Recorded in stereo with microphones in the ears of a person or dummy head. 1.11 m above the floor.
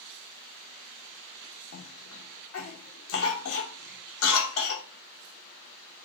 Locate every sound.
1.7 s a cough: 70° left (ahead or behind), 0.9 m